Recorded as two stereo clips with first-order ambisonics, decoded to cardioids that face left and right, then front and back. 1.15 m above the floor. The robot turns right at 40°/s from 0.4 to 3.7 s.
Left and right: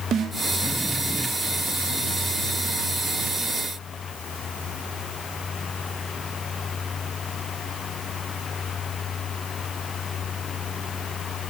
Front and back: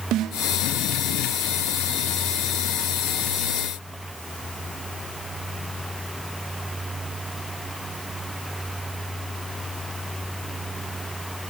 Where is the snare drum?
145° right, 1.4 m.